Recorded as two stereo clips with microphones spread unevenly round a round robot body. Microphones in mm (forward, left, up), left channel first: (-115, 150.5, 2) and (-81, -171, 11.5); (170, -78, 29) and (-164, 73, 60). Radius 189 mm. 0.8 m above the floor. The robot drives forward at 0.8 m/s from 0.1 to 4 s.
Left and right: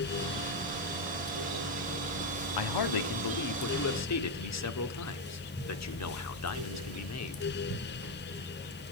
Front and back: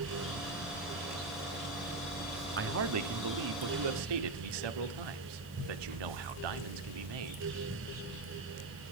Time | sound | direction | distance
2.6 | a man speaking | 95° left | 1.3 m